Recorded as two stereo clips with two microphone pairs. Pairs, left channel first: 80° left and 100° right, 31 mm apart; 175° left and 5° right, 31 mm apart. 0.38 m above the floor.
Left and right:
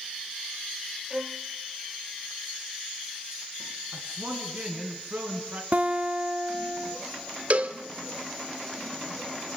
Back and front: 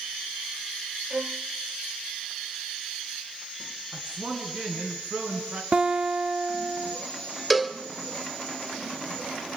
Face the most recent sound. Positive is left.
turn(degrees=-95)